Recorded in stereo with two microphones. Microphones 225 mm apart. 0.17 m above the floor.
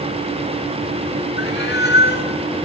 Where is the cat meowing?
45° left (ahead or behind), 1.7 m.